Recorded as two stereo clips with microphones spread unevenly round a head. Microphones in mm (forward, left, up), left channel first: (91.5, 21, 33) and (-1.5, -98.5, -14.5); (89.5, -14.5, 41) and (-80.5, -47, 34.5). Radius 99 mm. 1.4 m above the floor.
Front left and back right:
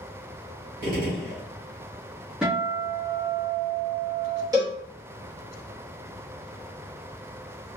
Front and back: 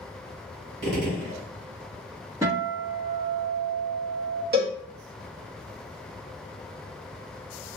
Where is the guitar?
120° left, 0.8 m.